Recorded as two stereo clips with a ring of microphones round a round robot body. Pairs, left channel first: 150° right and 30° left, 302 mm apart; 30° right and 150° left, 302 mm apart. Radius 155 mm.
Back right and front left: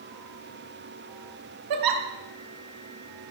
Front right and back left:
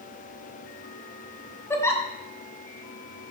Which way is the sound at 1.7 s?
50° left.